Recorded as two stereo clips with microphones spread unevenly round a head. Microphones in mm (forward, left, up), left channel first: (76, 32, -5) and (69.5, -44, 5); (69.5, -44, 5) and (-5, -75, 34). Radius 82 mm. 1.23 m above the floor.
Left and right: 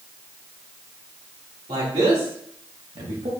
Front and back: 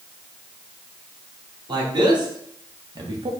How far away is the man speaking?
About 2 m.